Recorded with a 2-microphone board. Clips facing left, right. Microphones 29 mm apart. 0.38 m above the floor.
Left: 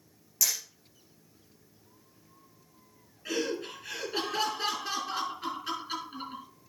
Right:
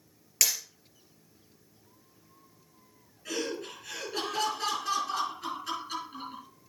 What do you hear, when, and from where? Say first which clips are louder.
0.4 s hammering: right 2 dB; 70° right (ahead or behind), 3.5 m
3.2 s laughter: left 2 dB; 25° left (ahead or behind), 5.5 m